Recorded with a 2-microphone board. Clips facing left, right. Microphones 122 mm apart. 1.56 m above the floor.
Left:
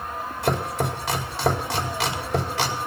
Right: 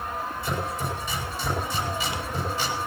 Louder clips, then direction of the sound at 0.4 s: Left 8 dB; 80° left.